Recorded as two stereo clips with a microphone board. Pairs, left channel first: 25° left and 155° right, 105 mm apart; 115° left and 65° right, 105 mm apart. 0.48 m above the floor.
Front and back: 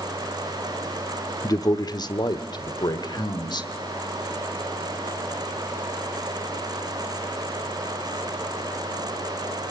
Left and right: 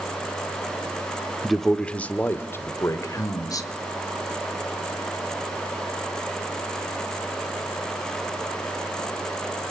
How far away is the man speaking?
About 1.0 m.